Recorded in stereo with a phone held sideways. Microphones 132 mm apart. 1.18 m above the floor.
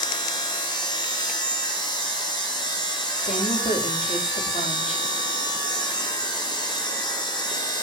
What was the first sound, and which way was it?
A machine running, 40° left (ahead or behind).